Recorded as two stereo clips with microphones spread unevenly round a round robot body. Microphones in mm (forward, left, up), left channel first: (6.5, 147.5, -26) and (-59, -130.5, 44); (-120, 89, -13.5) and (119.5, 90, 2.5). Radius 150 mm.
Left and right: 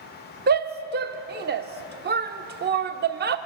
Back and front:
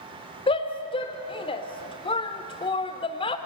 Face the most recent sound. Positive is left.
turn(degrees=-155)